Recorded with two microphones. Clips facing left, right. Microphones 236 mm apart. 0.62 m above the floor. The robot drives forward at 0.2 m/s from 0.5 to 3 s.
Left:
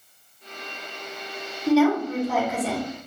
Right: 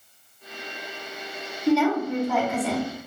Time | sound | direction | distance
1.7 | a woman speaking | 5° left (ahead or behind) | 0.8 m